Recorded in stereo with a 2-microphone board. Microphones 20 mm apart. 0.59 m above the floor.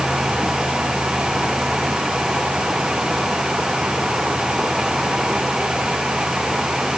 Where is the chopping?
I don't hear chopping.